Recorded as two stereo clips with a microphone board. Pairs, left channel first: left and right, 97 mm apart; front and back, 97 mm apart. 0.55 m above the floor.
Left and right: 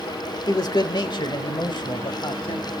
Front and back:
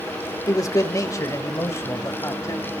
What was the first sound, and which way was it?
A man speaking, 50° left.